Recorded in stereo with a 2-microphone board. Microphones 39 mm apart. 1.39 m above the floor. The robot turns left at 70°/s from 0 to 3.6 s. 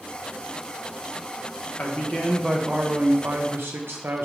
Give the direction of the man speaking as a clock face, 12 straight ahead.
10 o'clock.